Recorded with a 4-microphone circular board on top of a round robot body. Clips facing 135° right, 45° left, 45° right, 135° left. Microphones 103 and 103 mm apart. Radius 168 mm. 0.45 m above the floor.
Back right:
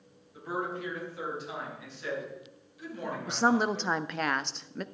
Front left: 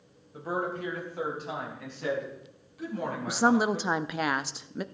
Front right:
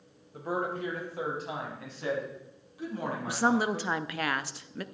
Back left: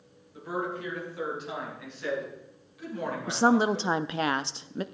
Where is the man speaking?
5° right, 3.5 m; by 3.9 s 15° left, 7 m.